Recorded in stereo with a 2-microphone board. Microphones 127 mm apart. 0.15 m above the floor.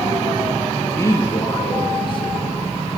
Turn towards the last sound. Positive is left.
turn(degrees=50)  # may be behind; listen again after turning